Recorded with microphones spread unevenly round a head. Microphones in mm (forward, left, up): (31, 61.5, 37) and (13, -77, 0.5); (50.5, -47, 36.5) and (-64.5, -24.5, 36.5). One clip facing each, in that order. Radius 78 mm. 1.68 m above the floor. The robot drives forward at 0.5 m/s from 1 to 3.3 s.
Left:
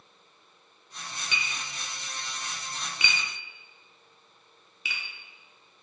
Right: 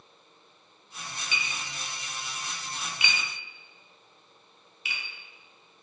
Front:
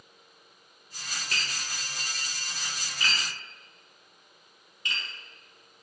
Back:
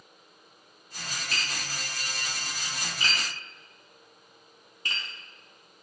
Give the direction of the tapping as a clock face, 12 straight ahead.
11 o'clock.